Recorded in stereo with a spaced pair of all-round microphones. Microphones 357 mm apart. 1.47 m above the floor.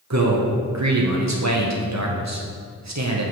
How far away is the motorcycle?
No motorcycle in this recording.